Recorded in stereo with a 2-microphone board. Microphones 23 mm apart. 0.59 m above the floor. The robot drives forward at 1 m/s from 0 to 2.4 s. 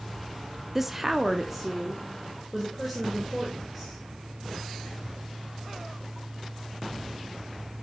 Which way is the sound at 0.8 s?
15° right (ahead or behind).